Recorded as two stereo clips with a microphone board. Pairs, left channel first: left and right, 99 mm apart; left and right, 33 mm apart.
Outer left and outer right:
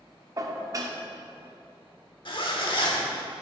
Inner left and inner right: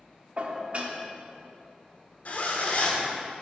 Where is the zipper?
60° left (ahead or behind), 1.2 m.